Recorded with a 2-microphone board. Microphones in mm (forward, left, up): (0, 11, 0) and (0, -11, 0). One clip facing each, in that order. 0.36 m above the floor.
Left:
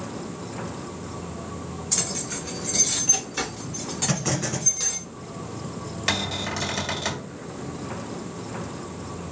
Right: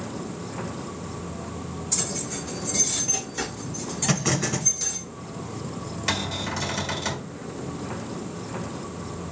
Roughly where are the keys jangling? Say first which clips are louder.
Left 2 dB; left.